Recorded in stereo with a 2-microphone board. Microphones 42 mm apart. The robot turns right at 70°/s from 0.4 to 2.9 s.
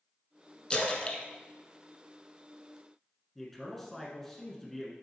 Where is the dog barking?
I don't hear a dog barking.